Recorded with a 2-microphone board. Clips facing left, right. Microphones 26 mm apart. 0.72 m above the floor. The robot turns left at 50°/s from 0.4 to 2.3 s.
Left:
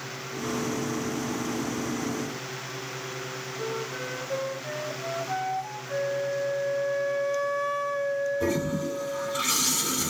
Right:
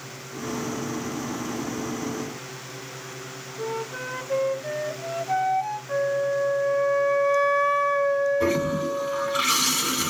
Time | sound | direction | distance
3.6 | a flute | 40° right (ahead or behind) | 0.9 m
5.9 | a flute | 70° right (ahead or behind) | 1.1 m
8.4 | a toilet flushing | 50° right (ahead or behind) | 1.9 m